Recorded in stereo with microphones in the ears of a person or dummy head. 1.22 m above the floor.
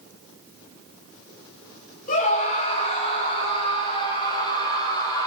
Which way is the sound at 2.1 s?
50° left (ahead or behind).